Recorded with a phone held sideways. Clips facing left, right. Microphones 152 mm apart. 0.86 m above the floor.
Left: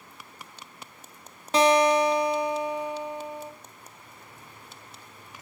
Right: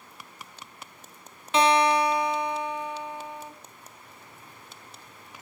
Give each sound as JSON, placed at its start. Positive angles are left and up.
{"t": 1.5, "sound": "a guitar", "side_deg": 40, "distance_m": 2.5}